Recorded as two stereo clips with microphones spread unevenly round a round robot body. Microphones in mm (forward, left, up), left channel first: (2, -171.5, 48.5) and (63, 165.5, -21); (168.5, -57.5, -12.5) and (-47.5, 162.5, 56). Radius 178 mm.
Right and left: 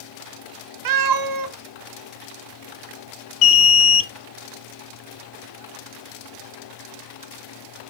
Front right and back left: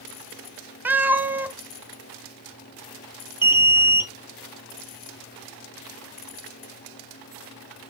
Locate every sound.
0.8 s a cat meowing: 50° left, 0.7 m
3.4 s an alarm: 125° right, 0.7 m